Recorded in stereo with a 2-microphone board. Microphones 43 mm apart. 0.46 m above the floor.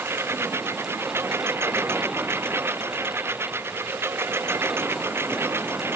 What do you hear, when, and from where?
0.0 s a lawn mower: 75° right (ahead or behind); by 6.0 s 70° right (ahead or behind)